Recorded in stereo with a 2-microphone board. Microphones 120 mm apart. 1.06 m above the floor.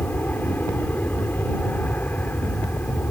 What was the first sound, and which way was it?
An aircraft, 15° left (ahead or behind).